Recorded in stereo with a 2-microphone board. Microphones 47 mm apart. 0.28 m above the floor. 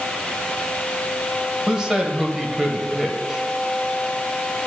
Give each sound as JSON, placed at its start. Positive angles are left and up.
{"t": 1.7, "sound": "a man speaking", "side_deg": -15, "distance_m": 1.0}